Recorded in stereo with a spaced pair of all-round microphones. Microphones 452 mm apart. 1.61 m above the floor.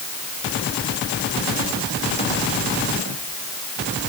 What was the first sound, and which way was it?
Only background noise.